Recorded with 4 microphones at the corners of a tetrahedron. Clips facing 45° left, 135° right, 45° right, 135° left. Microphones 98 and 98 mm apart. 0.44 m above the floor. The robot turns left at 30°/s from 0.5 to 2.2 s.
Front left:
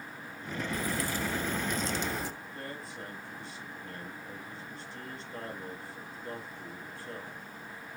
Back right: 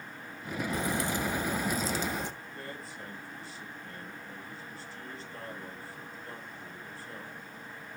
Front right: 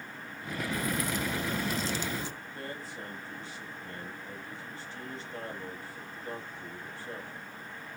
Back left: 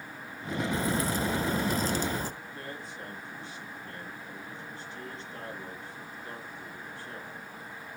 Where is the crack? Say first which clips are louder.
Back right 2 dB, back left 2 dB; 175° left, 1.0 m; by 2.3 s 135° left, 1.0 m.